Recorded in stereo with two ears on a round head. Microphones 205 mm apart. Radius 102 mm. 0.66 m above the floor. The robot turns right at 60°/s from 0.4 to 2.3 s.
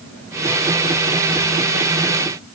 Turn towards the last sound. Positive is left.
No sound to turn to.